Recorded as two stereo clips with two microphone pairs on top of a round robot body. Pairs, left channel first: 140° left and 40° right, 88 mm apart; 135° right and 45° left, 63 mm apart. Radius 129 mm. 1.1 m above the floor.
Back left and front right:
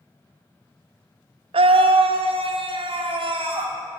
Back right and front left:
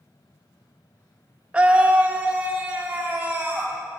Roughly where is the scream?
Ahead right.